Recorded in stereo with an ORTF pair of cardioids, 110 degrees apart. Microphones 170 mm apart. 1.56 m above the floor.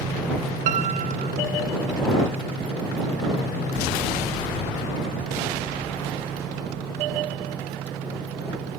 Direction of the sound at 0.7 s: 45° right.